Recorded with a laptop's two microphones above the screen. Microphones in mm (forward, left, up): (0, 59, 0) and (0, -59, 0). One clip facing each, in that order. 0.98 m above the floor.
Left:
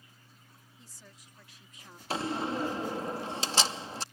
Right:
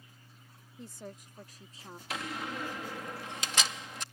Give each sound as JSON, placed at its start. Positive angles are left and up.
{"t": 0.8, "sound": "a woman speaking", "side_deg": -60}
{"t": 2.1, "sound": "a door slam", "side_deg": 30}